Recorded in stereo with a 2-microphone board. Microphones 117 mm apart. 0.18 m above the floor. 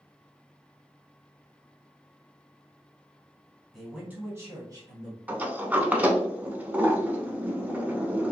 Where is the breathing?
No breathing in this recording.